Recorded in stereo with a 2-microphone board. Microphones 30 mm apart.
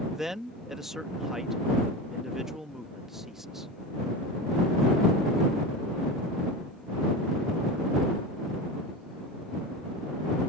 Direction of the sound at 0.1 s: 10° right (ahead or behind).